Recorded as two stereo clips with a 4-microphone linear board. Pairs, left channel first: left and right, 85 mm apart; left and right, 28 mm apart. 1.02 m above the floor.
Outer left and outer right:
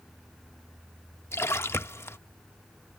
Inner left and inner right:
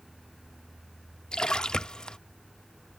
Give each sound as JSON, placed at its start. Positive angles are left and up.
{"t": 1.3, "sound": "a splash", "side_deg": 30}